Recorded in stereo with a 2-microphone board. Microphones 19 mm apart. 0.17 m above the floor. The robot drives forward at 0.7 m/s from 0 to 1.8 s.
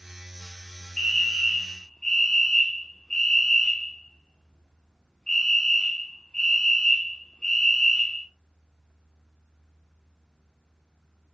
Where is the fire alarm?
45° left (ahead or behind), 4 m; by 8.3 s 50° left (ahead or behind), 4 m.